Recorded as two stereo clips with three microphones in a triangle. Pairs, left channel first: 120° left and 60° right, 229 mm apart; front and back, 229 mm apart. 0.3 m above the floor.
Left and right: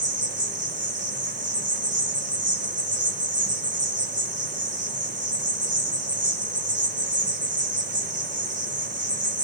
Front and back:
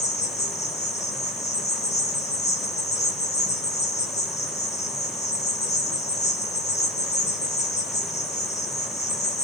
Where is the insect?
60° right, 4.5 m.